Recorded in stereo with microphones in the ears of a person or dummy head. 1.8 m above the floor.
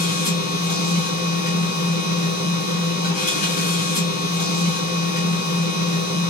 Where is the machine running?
30° left (ahead or behind), 3 m.